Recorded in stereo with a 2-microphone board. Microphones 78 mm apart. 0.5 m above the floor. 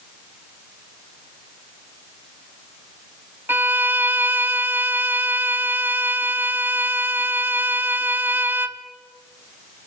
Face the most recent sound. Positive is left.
turn(degrees=-25)  # may be behind; listen again after turning